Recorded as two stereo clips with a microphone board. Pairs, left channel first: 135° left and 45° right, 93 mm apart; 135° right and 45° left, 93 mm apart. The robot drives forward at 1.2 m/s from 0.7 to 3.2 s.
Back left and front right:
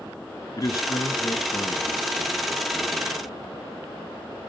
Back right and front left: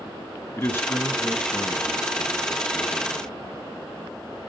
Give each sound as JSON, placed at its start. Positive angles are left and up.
{"t": 0.6, "sound": "a man speaking", "azimuth_deg": 175, "distance_m": 1.5}